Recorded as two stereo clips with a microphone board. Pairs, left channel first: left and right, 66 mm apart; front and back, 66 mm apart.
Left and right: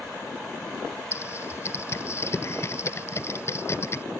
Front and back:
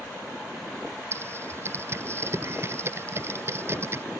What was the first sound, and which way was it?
Typing on a keyboard, 135° left.